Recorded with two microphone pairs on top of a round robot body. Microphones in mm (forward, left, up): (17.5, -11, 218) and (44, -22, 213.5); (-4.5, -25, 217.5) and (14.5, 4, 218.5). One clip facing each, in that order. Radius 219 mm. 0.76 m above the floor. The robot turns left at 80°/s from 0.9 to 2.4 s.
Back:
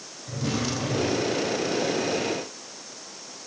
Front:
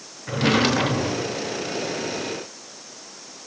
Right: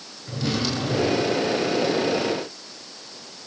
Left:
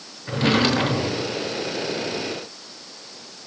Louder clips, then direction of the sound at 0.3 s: Front 9 dB, left 7 dB; 15° left.